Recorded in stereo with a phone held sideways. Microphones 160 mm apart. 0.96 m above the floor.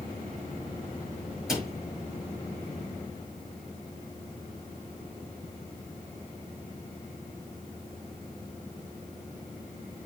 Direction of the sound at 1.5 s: Centre (ahead or behind).